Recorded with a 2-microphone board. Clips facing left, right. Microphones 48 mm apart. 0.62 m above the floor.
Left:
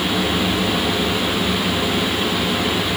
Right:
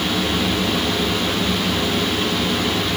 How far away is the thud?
I don't hear a thud.